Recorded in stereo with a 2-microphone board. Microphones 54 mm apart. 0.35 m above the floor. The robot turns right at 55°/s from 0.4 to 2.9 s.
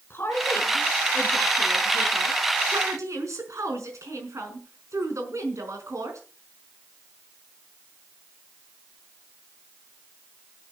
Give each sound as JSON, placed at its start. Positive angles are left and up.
{"t": 0.1, "sound": "a woman speaking", "azimuth_deg": 135, "distance_m": 5.0}